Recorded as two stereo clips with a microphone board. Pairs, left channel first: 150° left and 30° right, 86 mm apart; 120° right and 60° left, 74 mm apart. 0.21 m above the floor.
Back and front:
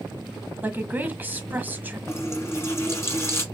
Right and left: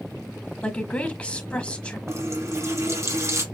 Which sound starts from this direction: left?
A running tap, at 2.1 s.